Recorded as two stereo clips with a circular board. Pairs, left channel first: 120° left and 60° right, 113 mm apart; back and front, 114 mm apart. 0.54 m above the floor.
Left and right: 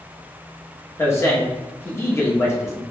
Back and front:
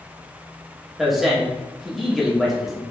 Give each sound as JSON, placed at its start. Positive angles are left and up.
{"t": 1.0, "sound": "a man speaking", "azimuth_deg": 85, "distance_m": 0.9}